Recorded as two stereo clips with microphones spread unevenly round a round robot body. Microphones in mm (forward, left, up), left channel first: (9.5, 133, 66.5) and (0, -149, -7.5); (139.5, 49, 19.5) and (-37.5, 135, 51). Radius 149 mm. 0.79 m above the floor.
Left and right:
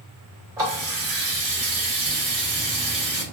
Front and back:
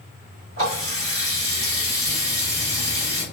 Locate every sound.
0.6 s a running tap: 170° right, 1.4 m